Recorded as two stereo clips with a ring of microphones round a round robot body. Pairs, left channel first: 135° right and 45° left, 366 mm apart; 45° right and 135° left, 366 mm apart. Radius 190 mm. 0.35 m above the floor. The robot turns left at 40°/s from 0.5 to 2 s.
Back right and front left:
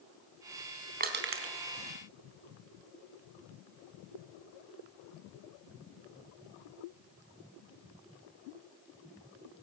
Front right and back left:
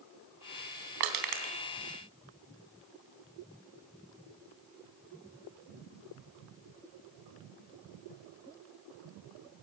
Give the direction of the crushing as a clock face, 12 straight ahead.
8 o'clock.